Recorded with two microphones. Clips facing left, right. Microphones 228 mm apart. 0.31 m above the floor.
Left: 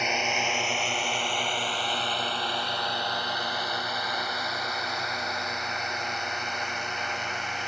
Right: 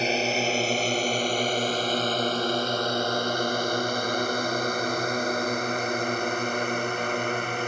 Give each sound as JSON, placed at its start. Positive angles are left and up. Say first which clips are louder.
{"t": 0.0, "sound": "a drone", "louder": "right 6 dB", "side_deg": -35}